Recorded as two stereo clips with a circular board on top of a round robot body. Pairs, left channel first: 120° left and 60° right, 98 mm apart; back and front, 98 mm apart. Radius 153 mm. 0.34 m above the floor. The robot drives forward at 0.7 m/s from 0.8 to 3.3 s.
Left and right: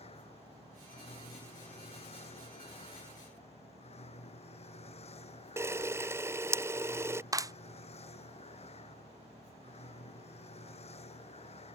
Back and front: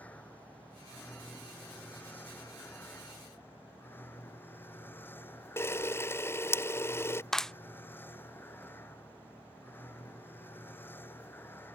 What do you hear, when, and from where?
0.0 s a vehicle: 105° left; by 11.8 s 110° left
5.6 s a camera shutter: 120° right
7.3 s a clap: 95° right